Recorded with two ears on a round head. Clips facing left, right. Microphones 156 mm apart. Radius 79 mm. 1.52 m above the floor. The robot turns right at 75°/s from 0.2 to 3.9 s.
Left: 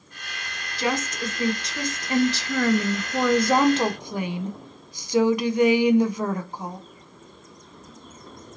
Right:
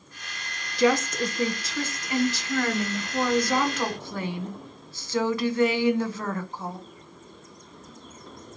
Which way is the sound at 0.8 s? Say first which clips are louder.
Right 5 dB; 70° right.